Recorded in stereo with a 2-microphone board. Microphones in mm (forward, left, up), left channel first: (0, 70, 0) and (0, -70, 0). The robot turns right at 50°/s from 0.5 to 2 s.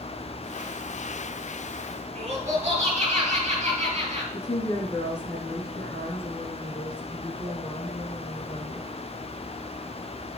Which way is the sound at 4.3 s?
35° left (ahead or behind).